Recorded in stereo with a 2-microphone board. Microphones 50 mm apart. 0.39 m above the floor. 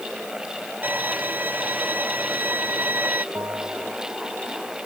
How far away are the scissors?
No scissors in this recording.